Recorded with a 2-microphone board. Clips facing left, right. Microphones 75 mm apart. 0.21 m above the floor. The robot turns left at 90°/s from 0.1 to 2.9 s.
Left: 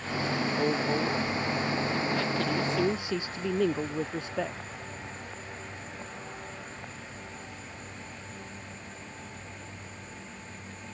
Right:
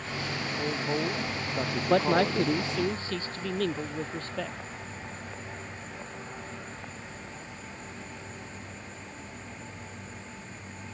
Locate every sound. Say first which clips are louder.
0.6 s a woman speaking: left 1 dB; 30° left; by 2.6 s 155° right
1.9 s a man speaking: right 6 dB; 105° right; by 4.6 s 165° left